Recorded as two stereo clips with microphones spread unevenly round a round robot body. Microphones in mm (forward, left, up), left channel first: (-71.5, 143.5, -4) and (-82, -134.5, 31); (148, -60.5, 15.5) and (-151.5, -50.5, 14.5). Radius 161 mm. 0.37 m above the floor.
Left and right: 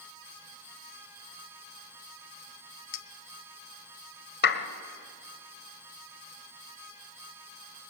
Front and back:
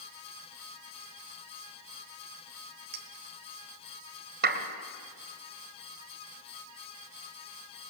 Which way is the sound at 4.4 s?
125° left.